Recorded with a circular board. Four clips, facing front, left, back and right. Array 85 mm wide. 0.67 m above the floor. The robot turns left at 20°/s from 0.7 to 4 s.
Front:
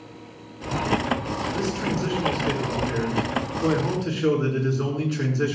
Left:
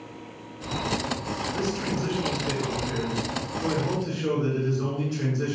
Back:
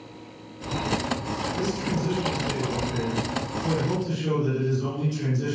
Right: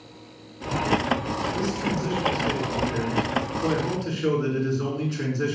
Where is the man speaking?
40° left, 7 m; by 5.5 s 10° right, 7 m.